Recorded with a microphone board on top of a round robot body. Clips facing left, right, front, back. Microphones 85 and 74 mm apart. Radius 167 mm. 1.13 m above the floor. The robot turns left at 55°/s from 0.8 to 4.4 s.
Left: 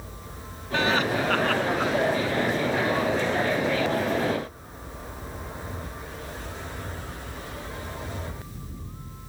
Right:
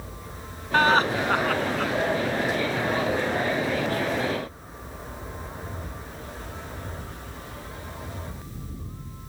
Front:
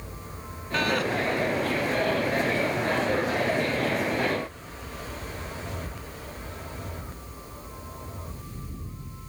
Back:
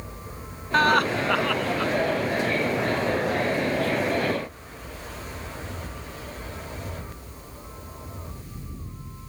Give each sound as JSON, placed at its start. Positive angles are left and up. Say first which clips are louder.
{"t": 0.7, "sound": "laughter", "louder": "right 4 dB, back 6 dB", "azimuth_deg": -135}